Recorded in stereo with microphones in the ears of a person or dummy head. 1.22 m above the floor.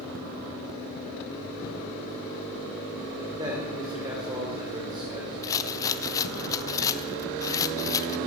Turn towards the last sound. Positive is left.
turn(degrees=20)  # may be behind; listen again after turning